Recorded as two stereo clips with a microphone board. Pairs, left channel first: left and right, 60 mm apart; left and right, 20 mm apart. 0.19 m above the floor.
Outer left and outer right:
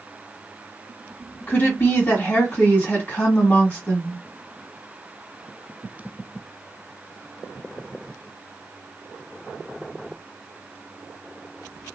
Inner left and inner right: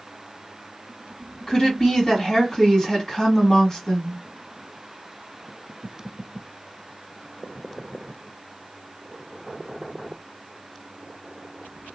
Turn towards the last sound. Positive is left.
turn(degrees=40)  # may be behind; listen again after turning